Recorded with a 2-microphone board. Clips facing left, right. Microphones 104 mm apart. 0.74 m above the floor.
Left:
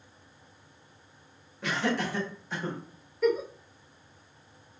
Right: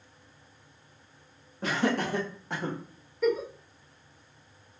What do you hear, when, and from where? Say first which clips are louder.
1.6 s laughter: right 2 dB; 35° right (ahead or behind), 1.1 m; by 2.8 s 65° right (ahead or behind), 1.6 m
3.2 s a giggle: left 1 dB; centre (ahead or behind), 0.6 m